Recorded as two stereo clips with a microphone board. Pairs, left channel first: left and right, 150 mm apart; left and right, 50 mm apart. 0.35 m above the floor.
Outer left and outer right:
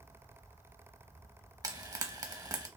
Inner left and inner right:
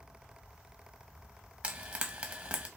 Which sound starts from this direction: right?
Frying, at 1.6 s.